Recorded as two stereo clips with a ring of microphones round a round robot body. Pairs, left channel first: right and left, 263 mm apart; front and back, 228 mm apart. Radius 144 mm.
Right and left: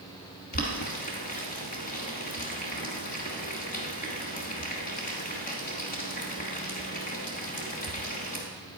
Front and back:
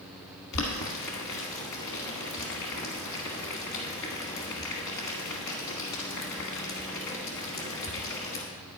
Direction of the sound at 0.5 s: 30° right.